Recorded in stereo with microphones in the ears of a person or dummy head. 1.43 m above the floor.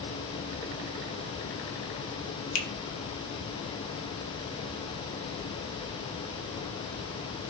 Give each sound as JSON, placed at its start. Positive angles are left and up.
{"t": 2.5, "sound": "a finger snap", "side_deg": 85, "distance_m": 0.9}